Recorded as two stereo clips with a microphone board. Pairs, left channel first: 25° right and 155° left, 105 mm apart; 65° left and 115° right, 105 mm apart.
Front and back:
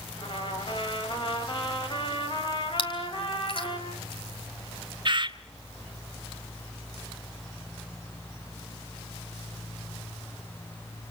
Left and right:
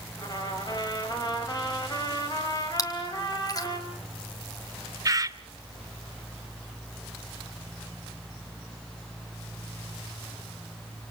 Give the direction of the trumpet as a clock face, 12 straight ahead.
11 o'clock.